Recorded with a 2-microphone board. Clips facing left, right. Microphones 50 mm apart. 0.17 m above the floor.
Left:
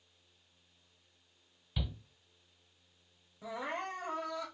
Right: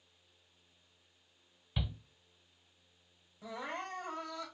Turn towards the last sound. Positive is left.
turn(degrees=15)  # may be behind; listen again after turning